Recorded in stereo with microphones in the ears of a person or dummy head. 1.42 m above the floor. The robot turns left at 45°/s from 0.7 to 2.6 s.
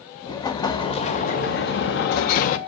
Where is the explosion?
150° left, 0.6 m; by 2.6 s 70° left, 0.6 m.